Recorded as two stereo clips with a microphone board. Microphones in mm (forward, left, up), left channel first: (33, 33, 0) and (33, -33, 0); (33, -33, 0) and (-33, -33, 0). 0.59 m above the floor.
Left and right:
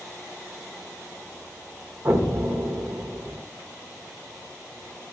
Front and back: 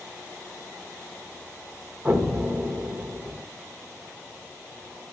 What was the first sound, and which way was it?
An explosion, 120° right.